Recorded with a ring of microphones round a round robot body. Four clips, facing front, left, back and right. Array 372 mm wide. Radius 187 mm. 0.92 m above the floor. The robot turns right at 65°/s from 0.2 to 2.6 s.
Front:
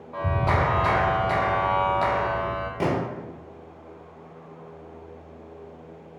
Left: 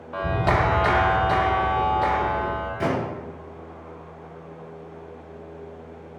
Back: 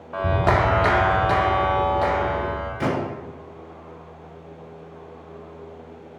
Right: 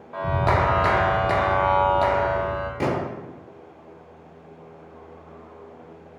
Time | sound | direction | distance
0.1 | a clap | 170° left | 0.7 m
2.8 | a gunshot | 40° right | 1.1 m